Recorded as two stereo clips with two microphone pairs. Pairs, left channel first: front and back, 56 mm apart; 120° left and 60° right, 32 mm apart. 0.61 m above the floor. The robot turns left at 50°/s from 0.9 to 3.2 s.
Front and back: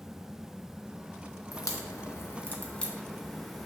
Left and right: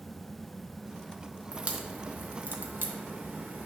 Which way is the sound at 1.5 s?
5° right.